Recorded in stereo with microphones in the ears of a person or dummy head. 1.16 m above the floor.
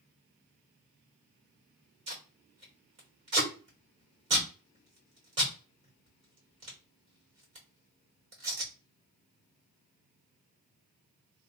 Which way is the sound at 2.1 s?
30° right (ahead or behind).